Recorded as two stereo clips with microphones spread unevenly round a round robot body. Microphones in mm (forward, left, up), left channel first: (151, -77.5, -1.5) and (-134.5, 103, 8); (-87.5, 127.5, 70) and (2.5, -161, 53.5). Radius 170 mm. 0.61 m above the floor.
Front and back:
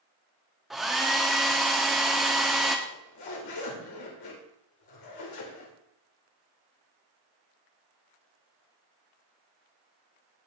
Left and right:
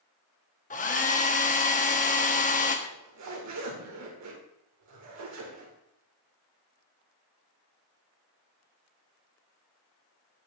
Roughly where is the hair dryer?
Ahead left.